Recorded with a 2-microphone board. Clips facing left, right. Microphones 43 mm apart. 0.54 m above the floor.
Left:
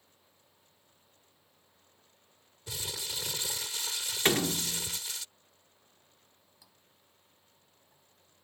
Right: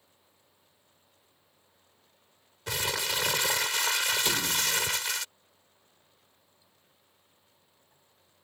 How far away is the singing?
I don't hear singing.